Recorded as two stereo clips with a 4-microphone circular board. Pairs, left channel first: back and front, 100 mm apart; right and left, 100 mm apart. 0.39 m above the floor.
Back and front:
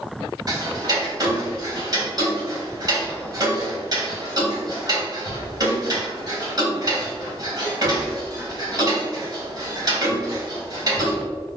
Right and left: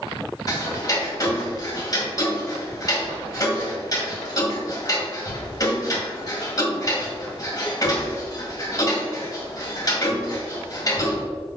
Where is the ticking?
45° right, 2.5 m.